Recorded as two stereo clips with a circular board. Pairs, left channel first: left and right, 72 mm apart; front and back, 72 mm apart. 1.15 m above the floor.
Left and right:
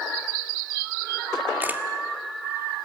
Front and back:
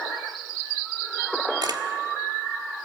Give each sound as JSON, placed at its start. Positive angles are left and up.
{"t": 1.6, "sound": "a camera shutter", "azimuth_deg": -155, "distance_m": 1.7}